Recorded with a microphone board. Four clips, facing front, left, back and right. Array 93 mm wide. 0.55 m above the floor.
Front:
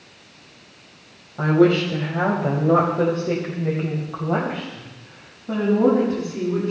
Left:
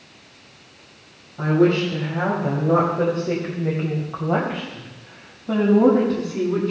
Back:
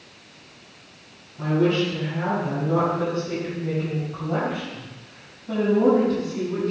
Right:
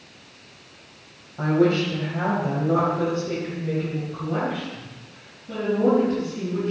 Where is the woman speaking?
10° right, 2.5 m; by 6.7 s 85° left, 4 m.